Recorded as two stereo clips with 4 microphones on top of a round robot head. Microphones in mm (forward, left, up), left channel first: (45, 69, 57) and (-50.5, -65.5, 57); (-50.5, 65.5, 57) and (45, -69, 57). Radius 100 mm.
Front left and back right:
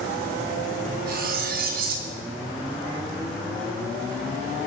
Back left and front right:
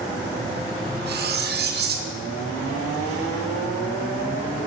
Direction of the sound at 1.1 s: 85° right.